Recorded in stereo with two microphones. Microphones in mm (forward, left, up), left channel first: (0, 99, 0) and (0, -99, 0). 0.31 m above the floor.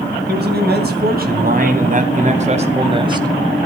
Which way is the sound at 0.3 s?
60° right (ahead or behind).